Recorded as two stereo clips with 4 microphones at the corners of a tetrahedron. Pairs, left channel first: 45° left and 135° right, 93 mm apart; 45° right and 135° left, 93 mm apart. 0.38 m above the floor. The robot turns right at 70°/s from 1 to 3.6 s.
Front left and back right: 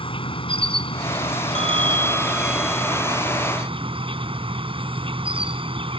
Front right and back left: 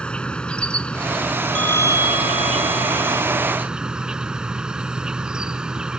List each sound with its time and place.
0.0 s an insect: 35° left; by 6.0 s 145° right
1.6 s a bell: 125° right; by 3.2 s 5° right